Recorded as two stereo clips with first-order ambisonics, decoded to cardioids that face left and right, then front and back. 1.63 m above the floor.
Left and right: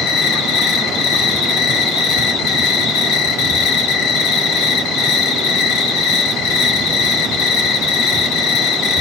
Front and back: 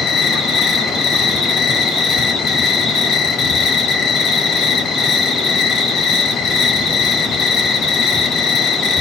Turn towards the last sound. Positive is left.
turn(degrees=70)